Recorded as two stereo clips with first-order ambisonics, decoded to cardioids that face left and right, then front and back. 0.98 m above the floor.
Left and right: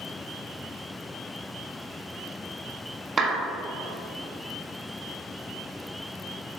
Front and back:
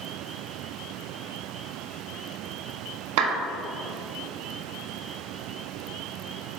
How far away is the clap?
About 1.2 m.